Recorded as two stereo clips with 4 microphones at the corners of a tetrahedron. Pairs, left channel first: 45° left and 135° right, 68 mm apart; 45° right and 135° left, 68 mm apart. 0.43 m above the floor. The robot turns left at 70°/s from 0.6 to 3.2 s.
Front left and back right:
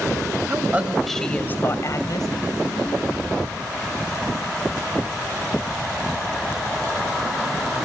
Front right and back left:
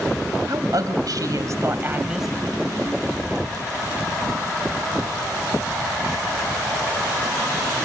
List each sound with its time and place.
0.5 s a woman speaking: 165° left, 2.5 m; by 2.3 s 50° left, 2.5 m